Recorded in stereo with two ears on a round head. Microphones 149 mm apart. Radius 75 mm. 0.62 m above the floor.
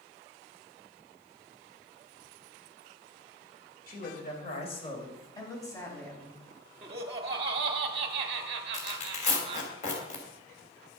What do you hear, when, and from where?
3.9 s a man speaking: 60° left (ahead or behind), 3 m; by 6.4 s 10° left (ahead or behind), 5 m
6.8 s laughter: 35° right (ahead or behind), 0.9 m
8.7 s tearing paper: 45° left (ahead or behind), 3 m